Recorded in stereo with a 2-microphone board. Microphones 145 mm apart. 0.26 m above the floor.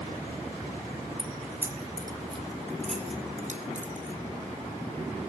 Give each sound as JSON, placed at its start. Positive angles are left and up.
{"t": 1.2, "sound": "keys jangling", "side_deg": 0, "distance_m": 1.5}